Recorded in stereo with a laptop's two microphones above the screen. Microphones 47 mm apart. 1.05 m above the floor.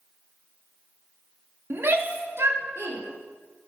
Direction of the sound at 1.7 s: 50° right (ahead or behind).